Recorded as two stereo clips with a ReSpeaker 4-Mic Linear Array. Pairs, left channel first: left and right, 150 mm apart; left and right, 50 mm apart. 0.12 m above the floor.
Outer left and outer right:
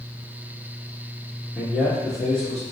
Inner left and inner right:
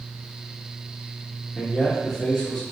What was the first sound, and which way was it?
A man speaking, 10° right (ahead or behind).